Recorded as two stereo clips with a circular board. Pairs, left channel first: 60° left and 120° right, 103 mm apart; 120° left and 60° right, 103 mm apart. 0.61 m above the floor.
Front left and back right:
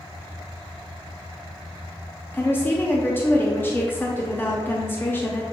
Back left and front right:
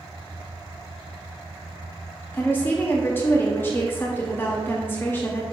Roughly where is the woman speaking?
Left.